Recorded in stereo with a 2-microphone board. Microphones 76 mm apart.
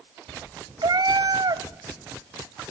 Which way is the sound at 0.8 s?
60° right (ahead or behind).